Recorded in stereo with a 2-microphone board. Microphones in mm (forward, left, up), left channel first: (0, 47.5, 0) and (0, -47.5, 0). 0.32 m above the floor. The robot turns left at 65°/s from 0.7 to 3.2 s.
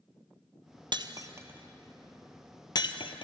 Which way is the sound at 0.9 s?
55° right (ahead or behind).